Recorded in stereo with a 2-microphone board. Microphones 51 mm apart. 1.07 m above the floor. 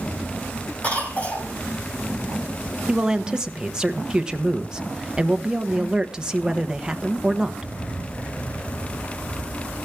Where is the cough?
30° left (ahead or behind), 5.5 m.